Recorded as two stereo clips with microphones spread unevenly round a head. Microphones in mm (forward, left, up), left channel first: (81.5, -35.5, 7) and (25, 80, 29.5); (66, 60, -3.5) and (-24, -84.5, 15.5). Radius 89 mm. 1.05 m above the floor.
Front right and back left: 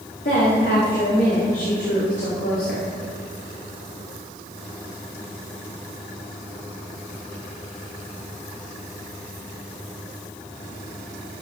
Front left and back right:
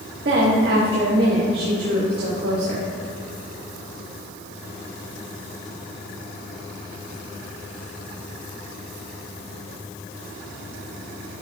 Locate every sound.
0.2 s a woman speaking: 95° right, 2.0 m